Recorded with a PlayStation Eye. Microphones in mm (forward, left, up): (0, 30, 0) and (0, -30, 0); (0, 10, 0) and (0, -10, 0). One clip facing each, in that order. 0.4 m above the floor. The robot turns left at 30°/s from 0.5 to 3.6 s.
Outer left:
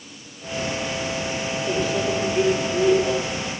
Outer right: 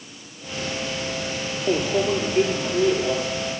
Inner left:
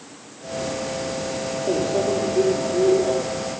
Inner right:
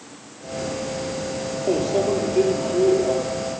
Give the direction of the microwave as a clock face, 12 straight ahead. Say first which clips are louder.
Outer right 3 dB, inner right 1 dB; 4 o'clock.